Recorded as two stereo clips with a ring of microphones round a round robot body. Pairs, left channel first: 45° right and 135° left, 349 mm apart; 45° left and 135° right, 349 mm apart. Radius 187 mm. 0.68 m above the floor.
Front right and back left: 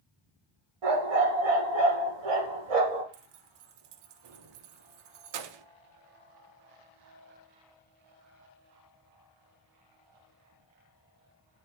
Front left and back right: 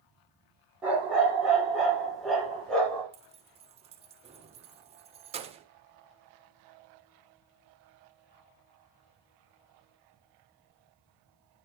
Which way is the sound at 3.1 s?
150° left.